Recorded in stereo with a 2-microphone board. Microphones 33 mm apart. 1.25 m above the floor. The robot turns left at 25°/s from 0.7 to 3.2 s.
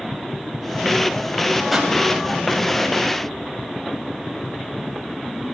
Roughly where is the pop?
Centre.